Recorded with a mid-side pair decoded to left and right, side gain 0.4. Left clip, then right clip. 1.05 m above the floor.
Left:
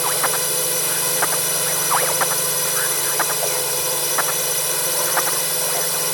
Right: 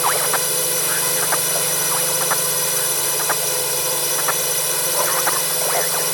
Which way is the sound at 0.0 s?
10° right.